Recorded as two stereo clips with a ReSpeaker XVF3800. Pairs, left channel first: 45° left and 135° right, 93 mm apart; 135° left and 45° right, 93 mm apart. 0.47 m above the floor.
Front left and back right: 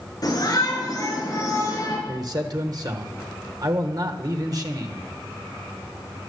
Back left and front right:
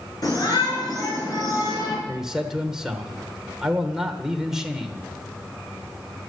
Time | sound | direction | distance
0.2 | a shout | 95° left | 7.5 m
2.1 | a man speaking | 125° right | 1.7 m